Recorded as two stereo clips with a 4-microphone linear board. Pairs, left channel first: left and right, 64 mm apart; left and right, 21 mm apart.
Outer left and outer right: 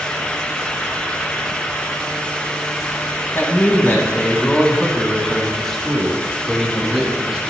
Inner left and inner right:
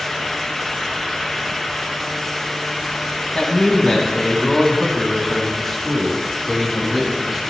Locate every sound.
3.4 s a man speaking: 40° left (ahead or behind), 3.5 m; by 7.5 s 5° right (ahead or behind), 5 m